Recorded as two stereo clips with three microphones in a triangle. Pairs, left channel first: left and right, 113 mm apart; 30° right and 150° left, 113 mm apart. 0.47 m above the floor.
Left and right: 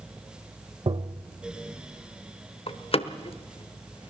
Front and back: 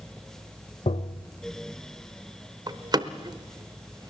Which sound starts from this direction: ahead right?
Tapping, at 0.9 s.